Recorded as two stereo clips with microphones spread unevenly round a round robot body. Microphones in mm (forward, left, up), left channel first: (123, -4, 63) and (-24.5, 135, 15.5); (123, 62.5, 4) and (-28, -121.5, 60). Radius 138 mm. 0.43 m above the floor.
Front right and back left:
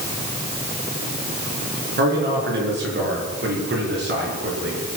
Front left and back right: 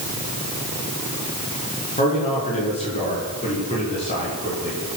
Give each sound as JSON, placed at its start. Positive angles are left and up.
{"t": 2.0, "sound": "a man speaking", "azimuth_deg": 115, "distance_m": 7.0}